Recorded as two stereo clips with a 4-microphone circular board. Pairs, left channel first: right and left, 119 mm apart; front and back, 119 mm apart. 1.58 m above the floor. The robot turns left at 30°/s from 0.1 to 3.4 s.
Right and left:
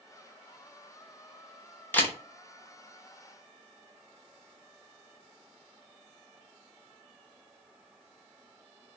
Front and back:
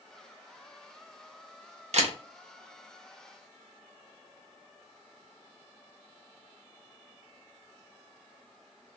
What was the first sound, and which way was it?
A camera shutter, 165° right.